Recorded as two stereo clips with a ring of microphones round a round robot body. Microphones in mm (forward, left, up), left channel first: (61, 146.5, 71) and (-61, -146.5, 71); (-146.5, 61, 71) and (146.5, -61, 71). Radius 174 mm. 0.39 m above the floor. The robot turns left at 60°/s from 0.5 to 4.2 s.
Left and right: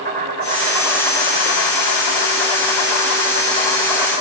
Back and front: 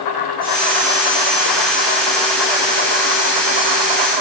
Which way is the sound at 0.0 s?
175° right.